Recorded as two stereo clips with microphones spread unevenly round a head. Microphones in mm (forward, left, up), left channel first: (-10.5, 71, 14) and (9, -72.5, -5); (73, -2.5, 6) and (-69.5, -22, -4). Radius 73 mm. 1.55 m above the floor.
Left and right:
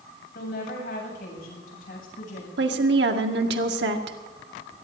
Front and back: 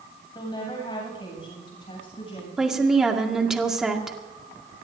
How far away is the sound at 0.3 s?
About 7.5 m.